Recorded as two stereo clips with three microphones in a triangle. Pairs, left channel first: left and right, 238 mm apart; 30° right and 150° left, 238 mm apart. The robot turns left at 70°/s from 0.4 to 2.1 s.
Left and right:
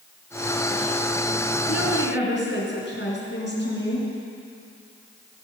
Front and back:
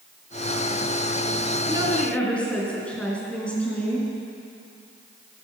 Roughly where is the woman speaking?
Left.